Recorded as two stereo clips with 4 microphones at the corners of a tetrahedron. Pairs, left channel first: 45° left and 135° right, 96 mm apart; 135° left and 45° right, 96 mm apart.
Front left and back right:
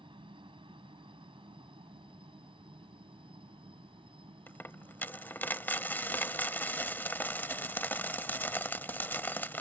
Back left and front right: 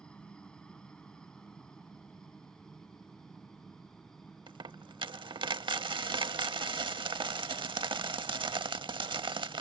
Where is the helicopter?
145° right; by 9.6 s 135° right.